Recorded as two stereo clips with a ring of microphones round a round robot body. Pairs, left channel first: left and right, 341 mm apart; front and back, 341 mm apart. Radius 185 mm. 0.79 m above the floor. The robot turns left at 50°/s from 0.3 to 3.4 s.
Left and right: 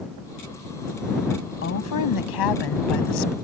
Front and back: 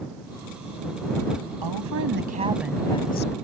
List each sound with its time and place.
1.6 s a woman speaking: 145° left; by 3.4 s 60° left